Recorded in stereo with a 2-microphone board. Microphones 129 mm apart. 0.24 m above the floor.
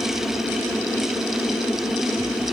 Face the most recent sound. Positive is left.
No sound to turn to.